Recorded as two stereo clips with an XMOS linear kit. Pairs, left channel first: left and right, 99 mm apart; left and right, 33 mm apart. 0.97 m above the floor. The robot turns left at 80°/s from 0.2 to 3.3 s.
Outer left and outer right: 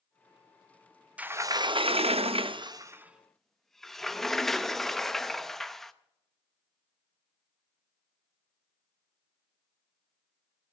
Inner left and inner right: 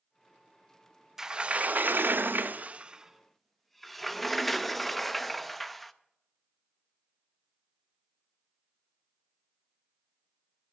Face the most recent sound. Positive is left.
turn(degrees=175)